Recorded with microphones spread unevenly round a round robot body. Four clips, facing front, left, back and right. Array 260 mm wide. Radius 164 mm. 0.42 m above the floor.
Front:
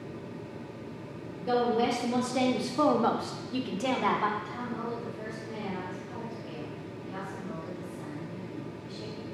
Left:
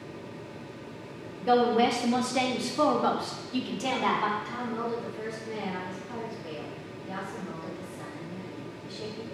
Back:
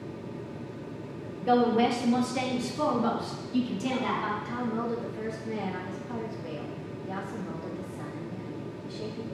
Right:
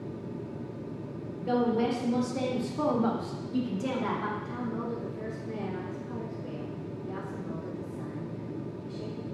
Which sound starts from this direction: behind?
A woman speaking, at 1.4 s.